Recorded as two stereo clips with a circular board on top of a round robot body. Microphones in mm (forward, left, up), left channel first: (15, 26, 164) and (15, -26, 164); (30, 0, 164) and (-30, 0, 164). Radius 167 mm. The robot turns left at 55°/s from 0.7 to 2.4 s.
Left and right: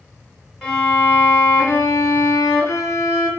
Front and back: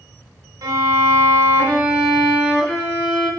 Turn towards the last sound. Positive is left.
turn(degrees=75)